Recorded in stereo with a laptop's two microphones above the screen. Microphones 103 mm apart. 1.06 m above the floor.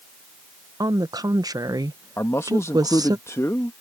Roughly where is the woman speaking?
Right.